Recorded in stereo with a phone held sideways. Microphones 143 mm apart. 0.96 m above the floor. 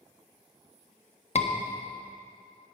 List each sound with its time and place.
1.4 s a scream: 50° left (ahead or behind), 1.2 m